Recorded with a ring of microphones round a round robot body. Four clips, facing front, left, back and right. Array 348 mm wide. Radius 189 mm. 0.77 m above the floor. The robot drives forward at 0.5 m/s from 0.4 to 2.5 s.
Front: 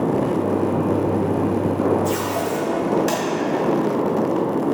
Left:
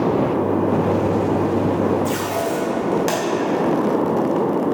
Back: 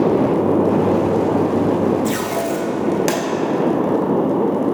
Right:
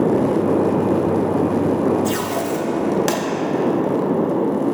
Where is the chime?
No chime in this recording.